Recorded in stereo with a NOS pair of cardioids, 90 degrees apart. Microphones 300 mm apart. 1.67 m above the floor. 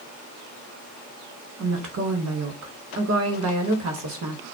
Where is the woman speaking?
65° right, 1.2 m.